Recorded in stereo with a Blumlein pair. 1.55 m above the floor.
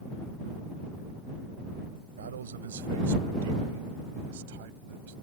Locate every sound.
2.2 s a man speaking: 65° right; by 5.1 s 55° right